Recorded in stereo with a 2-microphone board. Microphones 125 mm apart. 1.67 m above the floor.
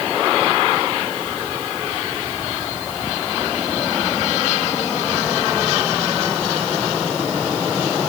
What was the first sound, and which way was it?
Only background noise.